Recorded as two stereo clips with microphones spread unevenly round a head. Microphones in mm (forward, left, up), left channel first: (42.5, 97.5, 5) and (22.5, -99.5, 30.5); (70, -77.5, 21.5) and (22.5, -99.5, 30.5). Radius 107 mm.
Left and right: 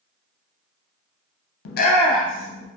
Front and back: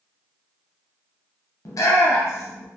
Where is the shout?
65° left, 0.5 m; by 2.7 s 30° right, 1.4 m.